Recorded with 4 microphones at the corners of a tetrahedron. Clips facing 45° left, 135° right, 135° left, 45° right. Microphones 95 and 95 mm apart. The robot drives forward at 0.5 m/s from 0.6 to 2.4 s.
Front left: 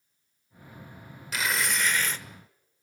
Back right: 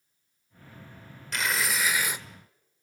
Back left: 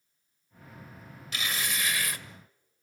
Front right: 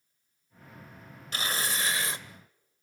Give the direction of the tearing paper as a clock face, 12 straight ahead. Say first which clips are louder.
Even, front right 1 dB; 1 o'clock.